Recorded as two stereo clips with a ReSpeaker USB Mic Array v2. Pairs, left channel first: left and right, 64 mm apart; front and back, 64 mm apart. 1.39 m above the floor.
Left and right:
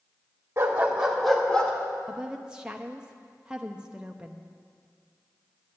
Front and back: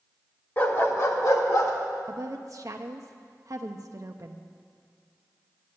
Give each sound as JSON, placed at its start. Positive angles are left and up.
{"t": 0.6, "sound": "a dog barking", "azimuth_deg": -45, "distance_m": 1.4}
{"t": 2.1, "sound": "a woman speaking", "azimuth_deg": -165, "distance_m": 0.6}